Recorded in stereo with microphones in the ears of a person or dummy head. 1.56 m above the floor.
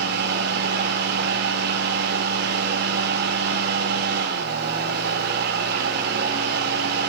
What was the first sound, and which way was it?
A fan, 60° right (ahead or behind).